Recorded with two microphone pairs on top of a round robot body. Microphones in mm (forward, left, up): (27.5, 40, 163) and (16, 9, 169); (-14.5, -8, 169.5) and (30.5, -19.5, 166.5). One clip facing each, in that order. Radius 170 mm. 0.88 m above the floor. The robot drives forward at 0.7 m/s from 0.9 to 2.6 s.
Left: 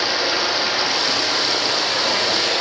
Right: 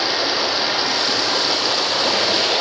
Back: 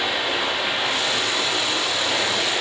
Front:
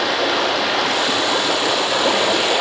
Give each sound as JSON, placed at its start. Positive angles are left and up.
{"t": 0.0, "sound": "running water", "azimuth_deg": -30, "distance_m": 6.0}